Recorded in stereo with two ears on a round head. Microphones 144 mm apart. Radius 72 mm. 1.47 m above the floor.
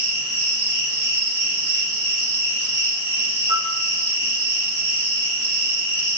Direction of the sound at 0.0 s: 75° right (ahead or behind).